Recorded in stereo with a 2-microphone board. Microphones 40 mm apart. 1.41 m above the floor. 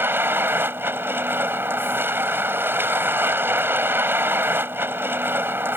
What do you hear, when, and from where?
0.0 s a vehicle: 65° right (ahead or behind)